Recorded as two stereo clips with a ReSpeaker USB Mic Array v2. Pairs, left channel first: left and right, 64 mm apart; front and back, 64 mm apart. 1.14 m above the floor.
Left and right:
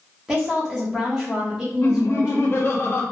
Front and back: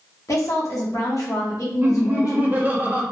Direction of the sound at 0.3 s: 10° right.